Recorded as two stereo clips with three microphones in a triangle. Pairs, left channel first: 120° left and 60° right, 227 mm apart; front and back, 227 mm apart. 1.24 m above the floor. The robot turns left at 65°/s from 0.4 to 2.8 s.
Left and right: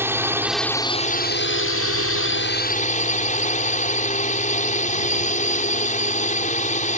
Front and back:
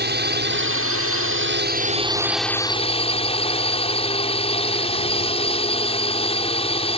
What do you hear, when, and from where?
0.0 s a drone: 140° right; by 7.0 s 65° left